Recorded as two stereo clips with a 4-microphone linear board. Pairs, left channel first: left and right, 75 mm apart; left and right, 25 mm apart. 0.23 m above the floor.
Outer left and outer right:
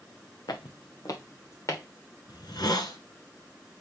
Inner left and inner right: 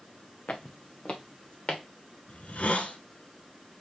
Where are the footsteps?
70° left (ahead or behind), 1.2 m; by 1.8 s 45° left (ahead or behind), 2.5 m.